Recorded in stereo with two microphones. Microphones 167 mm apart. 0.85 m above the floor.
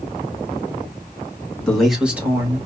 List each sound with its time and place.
1.7 s a man speaking: 5° left (ahead or behind), 1.4 m; by 2.7 s 25° right (ahead or behind), 1.3 m